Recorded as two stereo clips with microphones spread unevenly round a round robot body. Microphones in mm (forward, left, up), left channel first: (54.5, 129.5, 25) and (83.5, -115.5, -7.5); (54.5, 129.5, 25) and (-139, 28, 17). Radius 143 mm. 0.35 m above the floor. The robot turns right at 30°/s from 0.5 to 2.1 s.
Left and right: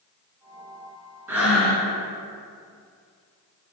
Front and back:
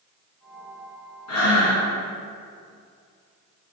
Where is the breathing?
Straight ahead, 3 m; by 1.9 s 15° left, 3 m.